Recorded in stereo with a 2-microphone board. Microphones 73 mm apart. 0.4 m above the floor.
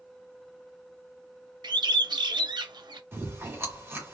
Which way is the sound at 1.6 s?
70° right (ahead or behind).